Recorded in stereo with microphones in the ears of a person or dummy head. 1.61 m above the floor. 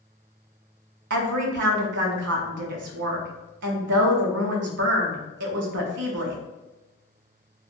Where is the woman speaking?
65° right (ahead or behind), 0.5 m.